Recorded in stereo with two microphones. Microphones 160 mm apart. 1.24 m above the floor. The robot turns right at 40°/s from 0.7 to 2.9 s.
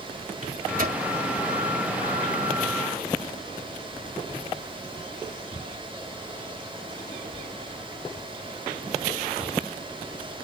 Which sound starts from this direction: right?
A microwave, at 0.4 s.